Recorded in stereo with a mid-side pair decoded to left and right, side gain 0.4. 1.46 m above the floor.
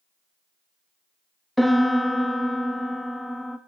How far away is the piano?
About 1.6 m.